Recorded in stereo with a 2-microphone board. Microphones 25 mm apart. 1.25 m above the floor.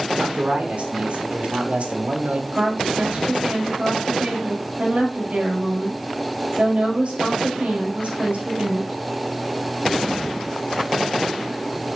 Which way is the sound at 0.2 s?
40° right (ahead or behind).